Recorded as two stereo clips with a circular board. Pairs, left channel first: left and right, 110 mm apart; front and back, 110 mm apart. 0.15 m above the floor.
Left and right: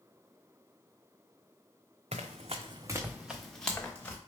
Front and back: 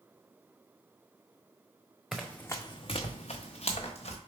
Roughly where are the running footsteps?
Right.